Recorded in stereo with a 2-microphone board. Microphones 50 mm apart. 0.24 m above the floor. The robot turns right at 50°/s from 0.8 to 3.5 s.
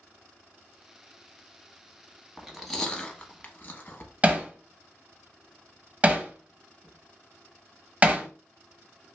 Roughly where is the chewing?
Centre.